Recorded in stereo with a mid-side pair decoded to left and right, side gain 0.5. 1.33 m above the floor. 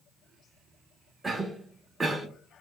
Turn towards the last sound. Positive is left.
turn(degrees=-20)